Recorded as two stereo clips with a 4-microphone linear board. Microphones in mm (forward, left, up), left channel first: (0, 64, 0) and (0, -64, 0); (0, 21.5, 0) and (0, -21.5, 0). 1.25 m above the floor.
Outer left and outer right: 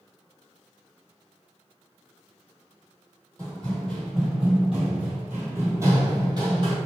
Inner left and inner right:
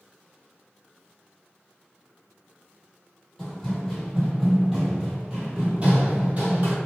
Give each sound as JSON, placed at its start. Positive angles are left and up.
{"t": 3.4, "sound": "running footsteps", "side_deg": 15, "distance_m": 1.8}